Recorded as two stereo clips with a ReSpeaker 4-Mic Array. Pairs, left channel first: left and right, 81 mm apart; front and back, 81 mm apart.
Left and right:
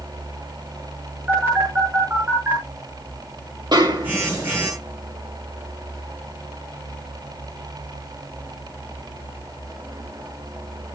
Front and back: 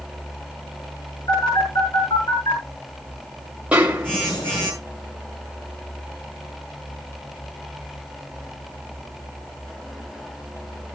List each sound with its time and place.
1.3 s a phone buzzing: 25° right, 7.5 m
3.7 s a snare drum: 105° right, 1.5 m